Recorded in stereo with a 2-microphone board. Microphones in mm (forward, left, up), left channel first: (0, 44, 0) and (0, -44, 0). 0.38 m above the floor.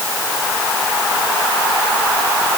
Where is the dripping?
I don't hear dripping.